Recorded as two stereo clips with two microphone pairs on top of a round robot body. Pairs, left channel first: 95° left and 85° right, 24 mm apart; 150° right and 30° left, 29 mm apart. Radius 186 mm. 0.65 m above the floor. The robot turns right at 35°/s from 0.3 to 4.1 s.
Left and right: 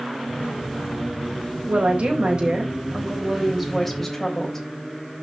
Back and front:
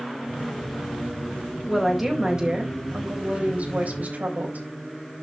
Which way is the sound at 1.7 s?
60° right.